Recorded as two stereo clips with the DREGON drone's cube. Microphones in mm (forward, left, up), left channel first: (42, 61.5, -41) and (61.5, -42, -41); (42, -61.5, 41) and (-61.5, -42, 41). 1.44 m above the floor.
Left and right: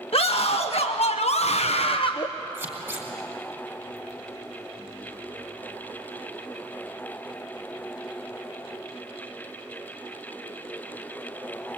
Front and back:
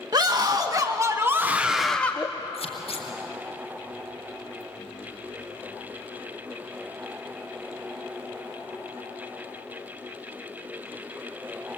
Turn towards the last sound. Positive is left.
turn(degrees=-10)